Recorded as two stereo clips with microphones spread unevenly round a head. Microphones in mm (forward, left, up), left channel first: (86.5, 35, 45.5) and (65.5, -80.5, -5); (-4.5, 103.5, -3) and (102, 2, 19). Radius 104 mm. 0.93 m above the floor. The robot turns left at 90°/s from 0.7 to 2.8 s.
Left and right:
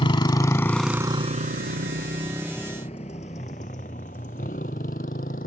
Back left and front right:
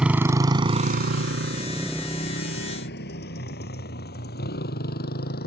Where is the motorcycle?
40° left; by 5.5 s 125° left.